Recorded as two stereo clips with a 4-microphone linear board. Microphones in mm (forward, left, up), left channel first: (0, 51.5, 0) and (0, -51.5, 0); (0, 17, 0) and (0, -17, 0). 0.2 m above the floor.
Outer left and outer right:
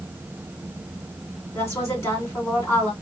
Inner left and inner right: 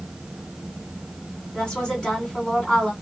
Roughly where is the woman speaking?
Left.